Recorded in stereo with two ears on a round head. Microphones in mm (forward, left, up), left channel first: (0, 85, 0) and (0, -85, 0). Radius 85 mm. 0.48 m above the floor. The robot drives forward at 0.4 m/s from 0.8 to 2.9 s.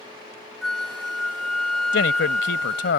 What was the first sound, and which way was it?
A flute, centre (ahead or behind).